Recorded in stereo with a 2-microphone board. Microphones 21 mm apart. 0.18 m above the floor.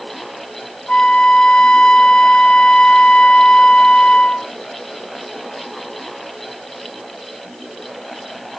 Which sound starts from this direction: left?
A flute, at 0.9 s.